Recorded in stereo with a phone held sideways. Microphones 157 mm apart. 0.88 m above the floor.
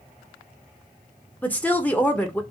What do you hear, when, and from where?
1.4 s a woman speaking: 10° left (ahead or behind), 0.6 m